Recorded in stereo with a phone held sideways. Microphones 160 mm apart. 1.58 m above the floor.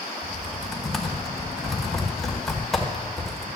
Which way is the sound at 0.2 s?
Centre (ahead or behind).